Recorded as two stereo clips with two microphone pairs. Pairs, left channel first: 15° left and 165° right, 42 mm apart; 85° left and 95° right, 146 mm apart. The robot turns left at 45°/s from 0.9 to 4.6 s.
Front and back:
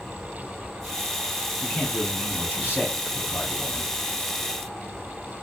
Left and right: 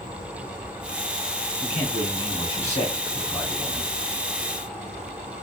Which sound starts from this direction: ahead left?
A man speaking, at 1.6 s.